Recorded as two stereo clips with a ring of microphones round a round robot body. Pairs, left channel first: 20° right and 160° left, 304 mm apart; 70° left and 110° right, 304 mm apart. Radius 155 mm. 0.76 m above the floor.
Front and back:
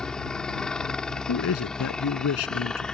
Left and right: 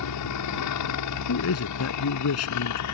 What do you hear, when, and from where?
0.0 s a helicopter: 65° left
1.3 s a man speaking: 25° left